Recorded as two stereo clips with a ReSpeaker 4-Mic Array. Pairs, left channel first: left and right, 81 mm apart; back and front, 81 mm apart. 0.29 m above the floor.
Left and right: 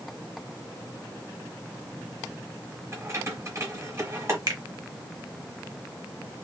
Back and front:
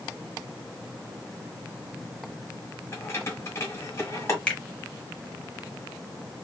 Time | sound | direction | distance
2.9 | keys jangling | 130° right | 1.4 m
4.5 | a finger snap | 105° right | 1.0 m